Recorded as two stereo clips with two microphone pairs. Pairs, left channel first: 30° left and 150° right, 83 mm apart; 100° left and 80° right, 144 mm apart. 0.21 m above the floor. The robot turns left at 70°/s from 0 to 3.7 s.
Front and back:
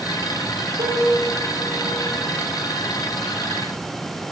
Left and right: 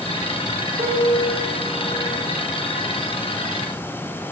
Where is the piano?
135° right, 5 m; by 2.1 s 135° left, 5 m.